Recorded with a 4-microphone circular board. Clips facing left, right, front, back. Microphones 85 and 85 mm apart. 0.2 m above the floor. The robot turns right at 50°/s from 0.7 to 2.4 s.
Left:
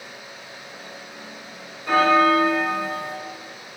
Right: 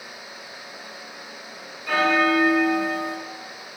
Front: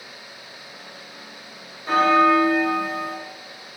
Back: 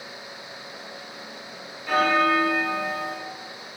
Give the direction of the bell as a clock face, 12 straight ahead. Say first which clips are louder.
Left 4 dB, front 4 dB; 11 o'clock.